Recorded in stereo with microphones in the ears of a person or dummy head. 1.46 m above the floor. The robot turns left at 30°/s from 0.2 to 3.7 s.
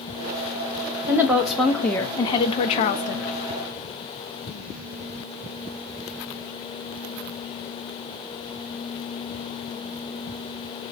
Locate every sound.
1.1 s a woman speaking: 160° right, 0.5 m; by 3.3 s 130° left, 0.5 m